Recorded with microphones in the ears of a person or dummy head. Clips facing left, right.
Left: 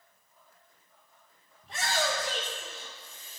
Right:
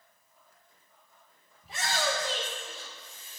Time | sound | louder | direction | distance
1.6 | a shout | left 1 dB | centre (ahead or behind) | 1.9 m